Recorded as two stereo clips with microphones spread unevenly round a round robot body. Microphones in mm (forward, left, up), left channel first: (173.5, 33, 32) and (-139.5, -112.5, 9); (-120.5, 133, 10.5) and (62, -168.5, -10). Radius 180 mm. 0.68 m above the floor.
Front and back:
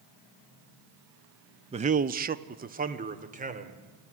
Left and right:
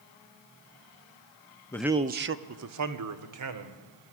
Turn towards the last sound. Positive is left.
turn(degrees=-90)